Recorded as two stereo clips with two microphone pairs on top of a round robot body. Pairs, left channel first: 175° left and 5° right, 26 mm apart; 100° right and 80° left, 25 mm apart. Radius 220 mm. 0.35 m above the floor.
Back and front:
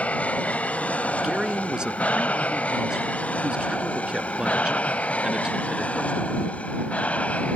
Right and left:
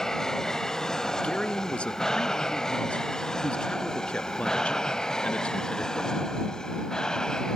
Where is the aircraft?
170° right; by 7.6 s 165° right.